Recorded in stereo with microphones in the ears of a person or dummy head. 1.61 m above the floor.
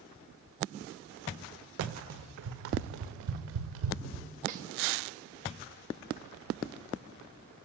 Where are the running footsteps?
70° right (ahead or behind), 4.5 m; by 4.2 s 75° right (ahead or behind), 6.5 m.